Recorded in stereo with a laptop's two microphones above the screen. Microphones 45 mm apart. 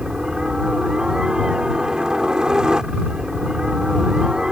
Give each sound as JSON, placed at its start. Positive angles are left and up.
{"t": 0.0, "sound": "a helicopter", "side_deg": -15}